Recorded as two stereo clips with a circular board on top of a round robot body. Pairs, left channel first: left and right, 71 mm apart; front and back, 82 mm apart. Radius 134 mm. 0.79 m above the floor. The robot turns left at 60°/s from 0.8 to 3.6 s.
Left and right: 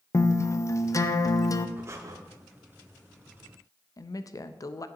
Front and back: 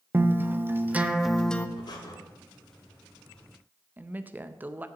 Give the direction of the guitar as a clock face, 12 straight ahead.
8 o'clock.